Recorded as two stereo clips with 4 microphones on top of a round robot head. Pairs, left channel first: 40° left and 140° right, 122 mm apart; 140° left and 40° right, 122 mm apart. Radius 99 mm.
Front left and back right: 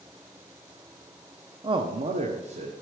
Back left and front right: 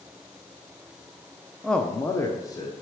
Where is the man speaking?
130° right, 0.7 m; by 2.7 s 160° right, 1.4 m.